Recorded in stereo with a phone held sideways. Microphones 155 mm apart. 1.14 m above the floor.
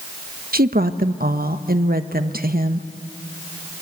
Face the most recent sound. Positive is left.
turn(degrees=-70)  # may be behind; listen again after turning